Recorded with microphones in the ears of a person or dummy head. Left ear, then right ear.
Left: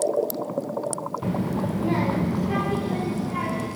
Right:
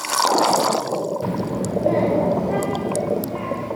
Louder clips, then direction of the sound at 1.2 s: Right 3 dB; 10° right (ahead or behind).